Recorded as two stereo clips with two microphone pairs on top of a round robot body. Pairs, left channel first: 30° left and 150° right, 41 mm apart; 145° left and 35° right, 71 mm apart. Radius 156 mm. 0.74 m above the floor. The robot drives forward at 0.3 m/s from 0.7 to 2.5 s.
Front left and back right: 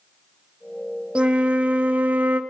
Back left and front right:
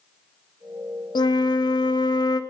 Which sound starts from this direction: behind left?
A flute, at 1.1 s.